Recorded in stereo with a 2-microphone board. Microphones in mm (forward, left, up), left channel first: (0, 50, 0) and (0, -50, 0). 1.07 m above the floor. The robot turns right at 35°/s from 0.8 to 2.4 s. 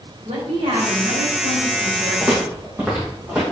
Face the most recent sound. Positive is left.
turn(degrees=-10)  # may be behind; listen again after turning